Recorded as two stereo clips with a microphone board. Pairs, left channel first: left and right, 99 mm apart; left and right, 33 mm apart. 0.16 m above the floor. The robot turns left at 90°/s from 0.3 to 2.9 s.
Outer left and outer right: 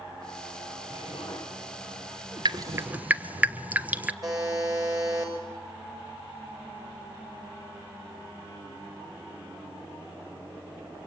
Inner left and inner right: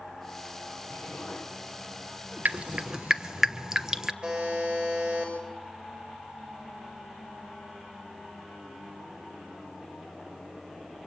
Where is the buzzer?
35° right (ahead or behind), 6.5 m.